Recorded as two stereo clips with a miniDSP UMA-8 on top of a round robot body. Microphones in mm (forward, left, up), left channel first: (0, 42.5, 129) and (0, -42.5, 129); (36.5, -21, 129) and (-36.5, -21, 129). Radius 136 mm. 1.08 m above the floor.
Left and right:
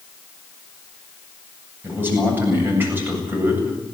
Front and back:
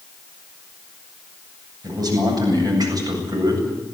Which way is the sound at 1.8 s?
155° right.